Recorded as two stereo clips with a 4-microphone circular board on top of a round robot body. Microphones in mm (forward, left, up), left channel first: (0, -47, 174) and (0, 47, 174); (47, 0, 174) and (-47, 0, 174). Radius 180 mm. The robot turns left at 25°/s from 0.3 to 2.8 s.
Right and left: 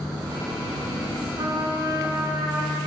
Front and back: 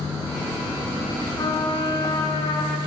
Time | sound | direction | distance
1.4 | a trumpet | 50° left | 6.5 m